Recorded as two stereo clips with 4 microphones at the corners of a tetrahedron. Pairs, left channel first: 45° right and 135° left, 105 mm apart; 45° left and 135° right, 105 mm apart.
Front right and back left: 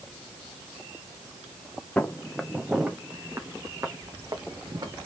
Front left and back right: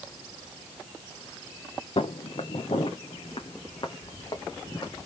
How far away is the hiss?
No hiss in this recording.